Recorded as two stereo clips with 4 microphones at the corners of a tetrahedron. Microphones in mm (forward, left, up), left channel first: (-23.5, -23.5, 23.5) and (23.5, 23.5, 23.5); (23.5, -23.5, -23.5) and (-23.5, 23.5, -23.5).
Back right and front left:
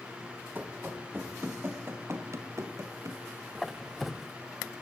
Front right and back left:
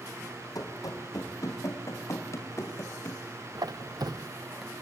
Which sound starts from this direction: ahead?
Running footsteps, at 0.6 s.